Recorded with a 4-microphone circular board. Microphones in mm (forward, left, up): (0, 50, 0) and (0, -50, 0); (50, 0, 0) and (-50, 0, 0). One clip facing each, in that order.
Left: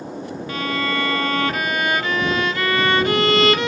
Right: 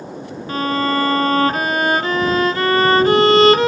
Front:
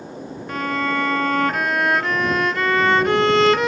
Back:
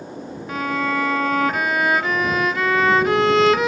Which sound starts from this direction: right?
A violin, at 0.5 s.